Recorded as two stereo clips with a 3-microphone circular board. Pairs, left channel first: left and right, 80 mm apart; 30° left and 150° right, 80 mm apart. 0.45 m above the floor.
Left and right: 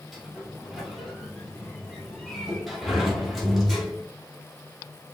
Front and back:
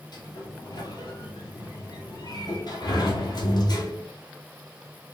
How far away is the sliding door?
About 2.0 m.